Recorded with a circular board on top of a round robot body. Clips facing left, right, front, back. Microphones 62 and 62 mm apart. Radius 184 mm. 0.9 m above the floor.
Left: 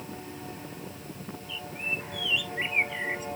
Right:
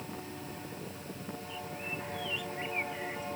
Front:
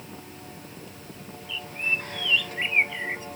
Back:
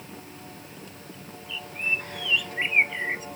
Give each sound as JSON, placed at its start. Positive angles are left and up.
{"t": 1.5, "sound": "a bird", "azimuth_deg": 105}